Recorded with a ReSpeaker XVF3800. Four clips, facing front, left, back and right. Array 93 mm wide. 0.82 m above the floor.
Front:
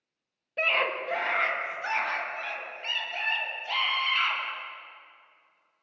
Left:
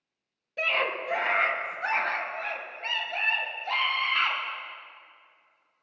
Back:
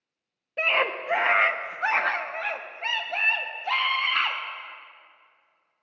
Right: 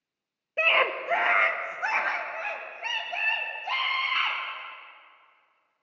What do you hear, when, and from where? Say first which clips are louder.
0.6 s a scream: right 4 dB, back 2 dB; 105° right, 0.6 m; by 4.4 s 175° right, 2 m